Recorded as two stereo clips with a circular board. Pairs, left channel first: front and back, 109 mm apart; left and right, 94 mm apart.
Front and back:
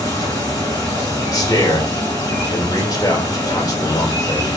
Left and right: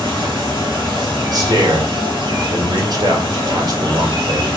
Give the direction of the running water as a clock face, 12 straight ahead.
2 o'clock.